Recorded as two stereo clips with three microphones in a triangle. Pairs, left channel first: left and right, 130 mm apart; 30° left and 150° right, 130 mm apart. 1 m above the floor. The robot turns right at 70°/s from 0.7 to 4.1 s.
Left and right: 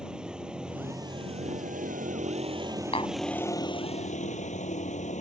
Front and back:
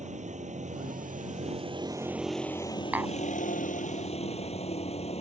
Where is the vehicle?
175° right; by 5.2 s 65° left.